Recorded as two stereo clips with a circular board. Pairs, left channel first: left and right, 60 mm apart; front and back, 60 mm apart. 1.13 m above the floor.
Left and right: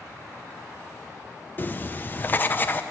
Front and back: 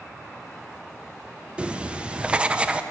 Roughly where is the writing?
Behind left.